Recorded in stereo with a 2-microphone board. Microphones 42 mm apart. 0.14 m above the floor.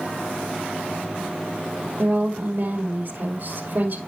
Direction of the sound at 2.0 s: 65° right (ahead or behind).